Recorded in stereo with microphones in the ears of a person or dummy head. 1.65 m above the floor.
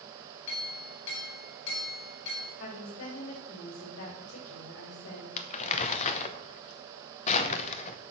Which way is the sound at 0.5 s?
80° left.